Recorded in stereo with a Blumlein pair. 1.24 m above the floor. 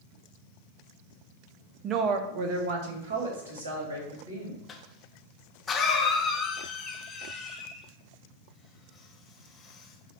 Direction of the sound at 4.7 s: 20° left.